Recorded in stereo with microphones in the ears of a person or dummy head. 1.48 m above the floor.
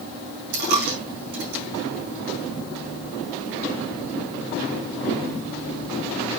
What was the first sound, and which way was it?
A dropped coin, 60° right (ahead or behind).